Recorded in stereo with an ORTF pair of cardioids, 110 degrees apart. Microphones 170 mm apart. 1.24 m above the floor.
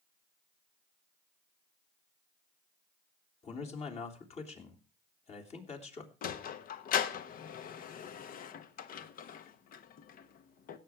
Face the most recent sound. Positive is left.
turn(degrees=55)